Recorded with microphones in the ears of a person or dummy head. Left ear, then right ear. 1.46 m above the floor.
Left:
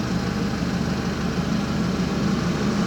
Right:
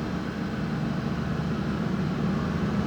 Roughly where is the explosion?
I don't hear an explosion.